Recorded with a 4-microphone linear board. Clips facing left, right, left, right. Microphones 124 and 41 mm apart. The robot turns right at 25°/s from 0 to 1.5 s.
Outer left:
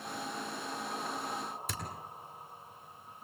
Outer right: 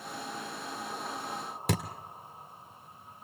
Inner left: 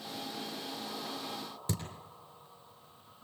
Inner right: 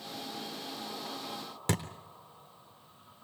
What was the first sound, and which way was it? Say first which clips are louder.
A thud: outer right 11 dB, inner right 6 dB; 70° right (ahead or behind).